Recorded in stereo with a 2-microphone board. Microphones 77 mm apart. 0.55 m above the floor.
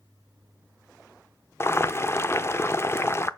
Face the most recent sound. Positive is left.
turn(degrees=35)  # may be behind; listen again after turning